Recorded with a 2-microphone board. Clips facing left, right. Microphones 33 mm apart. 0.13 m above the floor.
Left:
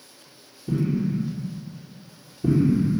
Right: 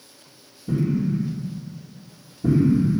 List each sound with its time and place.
0.7 s an explosion: 25° left (ahead or behind), 4 m